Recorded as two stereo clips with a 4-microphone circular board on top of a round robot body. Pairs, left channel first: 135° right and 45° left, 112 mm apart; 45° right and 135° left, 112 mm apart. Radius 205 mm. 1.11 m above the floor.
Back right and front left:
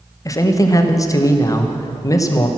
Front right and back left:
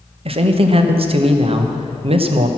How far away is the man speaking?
About 1.1 m.